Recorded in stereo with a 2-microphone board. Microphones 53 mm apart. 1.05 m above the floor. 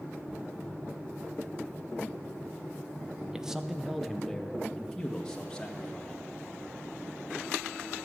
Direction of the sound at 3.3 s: 10° right (ahead or behind).